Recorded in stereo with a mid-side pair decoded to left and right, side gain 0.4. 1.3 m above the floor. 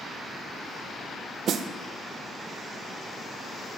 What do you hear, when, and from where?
1.5 s a snare drum: 70° right, 1.0 m